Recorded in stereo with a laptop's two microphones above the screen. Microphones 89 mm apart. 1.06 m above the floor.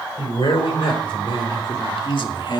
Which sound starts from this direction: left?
A man speaking, at 0.2 s.